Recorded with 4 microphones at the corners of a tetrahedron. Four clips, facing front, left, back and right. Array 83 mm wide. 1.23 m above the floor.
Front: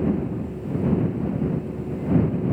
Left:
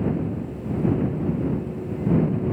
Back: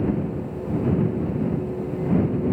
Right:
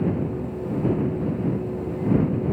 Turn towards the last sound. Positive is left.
No sound to turn to.